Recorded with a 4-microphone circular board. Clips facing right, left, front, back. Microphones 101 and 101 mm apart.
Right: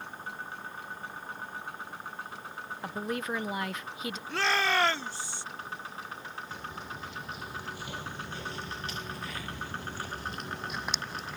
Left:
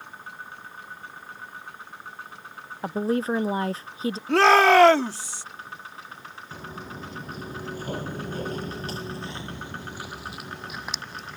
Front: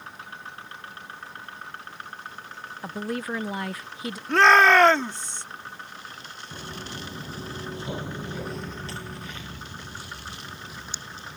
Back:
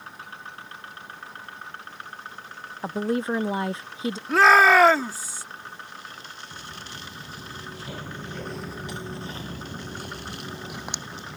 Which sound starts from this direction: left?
A shout, at 4.3 s.